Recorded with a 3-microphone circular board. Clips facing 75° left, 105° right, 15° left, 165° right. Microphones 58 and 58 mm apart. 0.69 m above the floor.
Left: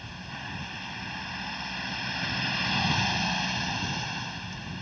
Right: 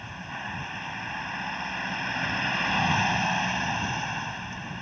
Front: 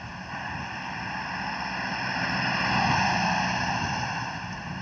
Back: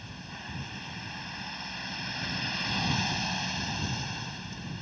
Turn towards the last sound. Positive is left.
turn(degrees=-35)